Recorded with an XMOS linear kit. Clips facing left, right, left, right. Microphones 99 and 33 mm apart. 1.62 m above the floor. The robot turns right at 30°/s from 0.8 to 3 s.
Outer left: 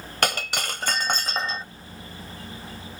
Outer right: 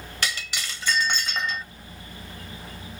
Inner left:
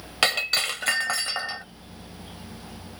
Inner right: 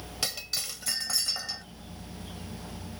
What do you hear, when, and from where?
0.2 s breaking glass: 55° left (ahead or behind); by 1.6 s 30° left (ahead or behind)